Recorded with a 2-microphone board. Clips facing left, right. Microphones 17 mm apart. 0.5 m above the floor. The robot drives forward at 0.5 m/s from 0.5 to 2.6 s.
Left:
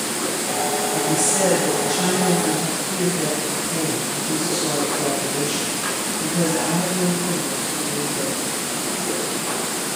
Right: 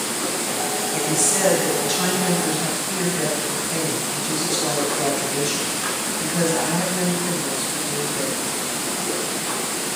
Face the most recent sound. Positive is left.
turn(degrees=-40)  # may be behind; listen again after turning